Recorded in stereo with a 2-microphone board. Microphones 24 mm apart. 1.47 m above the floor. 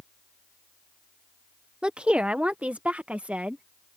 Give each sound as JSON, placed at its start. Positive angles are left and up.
{"t": 1.8, "sound": "a woman speaking", "side_deg": -40}